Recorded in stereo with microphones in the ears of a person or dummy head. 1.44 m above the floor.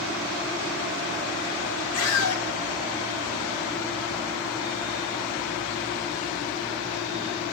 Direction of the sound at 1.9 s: 90° left.